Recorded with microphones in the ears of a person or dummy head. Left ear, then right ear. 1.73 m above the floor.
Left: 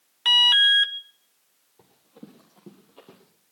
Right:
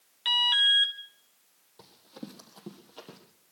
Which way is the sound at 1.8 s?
30° right (ahead or behind).